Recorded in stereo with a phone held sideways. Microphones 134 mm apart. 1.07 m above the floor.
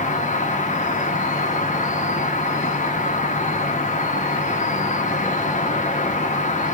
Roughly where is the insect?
Left.